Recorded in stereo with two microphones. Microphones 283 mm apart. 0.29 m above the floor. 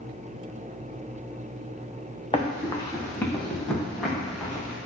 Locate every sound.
2.3 s running footsteps: 20° left (ahead or behind), 1.1 m; by 4.8 s 5° right (ahead or behind), 2 m